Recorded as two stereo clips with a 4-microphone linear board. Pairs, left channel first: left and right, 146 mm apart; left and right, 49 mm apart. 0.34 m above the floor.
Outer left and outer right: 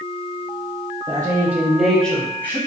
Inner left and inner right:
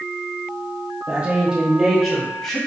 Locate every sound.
1.1 s a woman speaking: 25° right (ahead or behind), 0.9 m; by 2.6 s 15° left (ahead or behind), 1.5 m